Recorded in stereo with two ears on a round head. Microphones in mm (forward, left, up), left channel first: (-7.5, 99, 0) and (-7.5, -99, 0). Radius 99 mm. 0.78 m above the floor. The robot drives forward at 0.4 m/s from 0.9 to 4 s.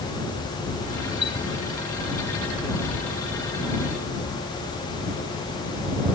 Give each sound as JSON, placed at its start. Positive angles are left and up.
{"t": 1.2, "sound": "a chime", "side_deg": 20}